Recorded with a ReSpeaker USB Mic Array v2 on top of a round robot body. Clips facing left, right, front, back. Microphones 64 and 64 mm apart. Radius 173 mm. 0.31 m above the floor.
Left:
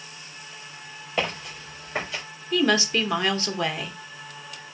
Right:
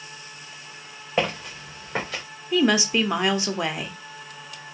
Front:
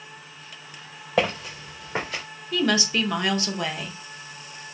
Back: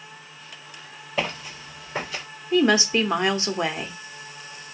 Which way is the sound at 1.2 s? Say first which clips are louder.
Right 3 dB, front 5 dB; 30° right.